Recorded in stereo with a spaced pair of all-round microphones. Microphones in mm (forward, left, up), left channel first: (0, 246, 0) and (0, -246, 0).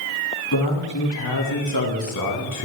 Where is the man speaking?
50° left (ahead or behind), 3.5 m; by 2.7 s 35° left (ahead or behind), 1.8 m.